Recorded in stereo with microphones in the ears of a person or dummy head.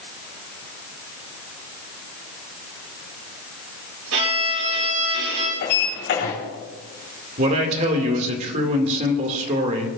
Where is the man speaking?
40° right (ahead or behind), 2.5 m.